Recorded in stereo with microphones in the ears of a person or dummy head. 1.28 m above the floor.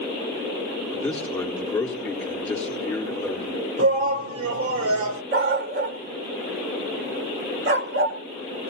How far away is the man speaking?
About 4 m.